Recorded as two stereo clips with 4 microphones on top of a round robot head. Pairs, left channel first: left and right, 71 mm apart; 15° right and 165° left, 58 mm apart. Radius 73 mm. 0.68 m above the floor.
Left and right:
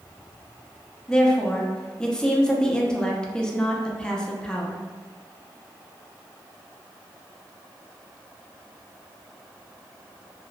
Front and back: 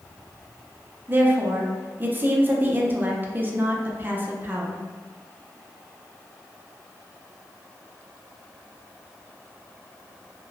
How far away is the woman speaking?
About 0.6 m.